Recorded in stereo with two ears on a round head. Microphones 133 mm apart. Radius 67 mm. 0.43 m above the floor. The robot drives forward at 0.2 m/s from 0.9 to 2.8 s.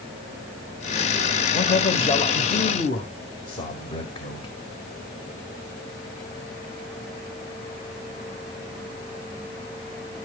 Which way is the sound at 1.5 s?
40° left (ahead or behind).